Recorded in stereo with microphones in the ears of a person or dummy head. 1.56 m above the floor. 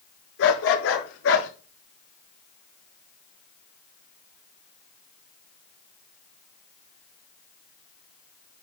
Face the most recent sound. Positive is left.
turn(degrees=75)  # may be behind; listen again after turning